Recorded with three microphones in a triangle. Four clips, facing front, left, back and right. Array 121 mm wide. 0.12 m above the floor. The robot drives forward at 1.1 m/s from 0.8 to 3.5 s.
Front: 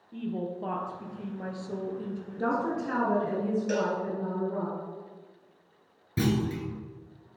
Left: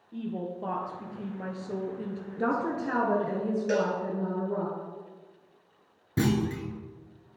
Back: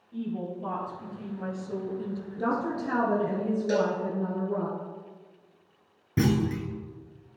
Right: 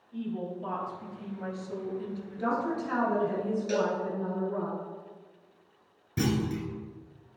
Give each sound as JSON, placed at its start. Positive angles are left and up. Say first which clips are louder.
{"t": 0.1, "sound": "a woman speaking", "louder": "even, even", "azimuth_deg": 50, "distance_m": 2.0}
{"t": 2.4, "sound": "a woman speaking", "louder": "left 1 dB, even", "azimuth_deg": 90, "distance_m": 1.5}
{"t": 3.7, "sound": "a cowbell", "louder": "left 1 dB, back 4 dB", "azimuth_deg": 105, "distance_m": 1.2}
{"t": 6.2, "sound": "a clunk", "louder": "left 2 dB, back 2 dB", "azimuth_deg": 135, "distance_m": 1.1}